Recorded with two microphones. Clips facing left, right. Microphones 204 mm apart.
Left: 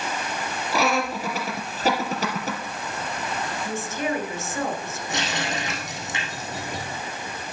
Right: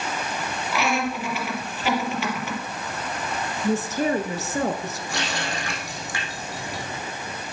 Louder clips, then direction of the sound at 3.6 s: Right 7 dB; 40° right (ahead or behind).